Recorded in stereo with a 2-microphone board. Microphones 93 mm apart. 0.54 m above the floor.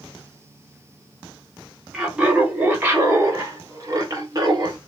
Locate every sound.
1.9 s laughter: 5° right (ahead or behind), 1.3 m; by 4.8 s 45° right (ahead or behind), 2 m